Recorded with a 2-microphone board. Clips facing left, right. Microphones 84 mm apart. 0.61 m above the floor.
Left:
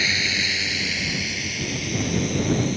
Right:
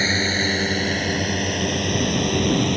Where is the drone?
35° right (ahead or behind); by 2.8 s 60° right (ahead or behind).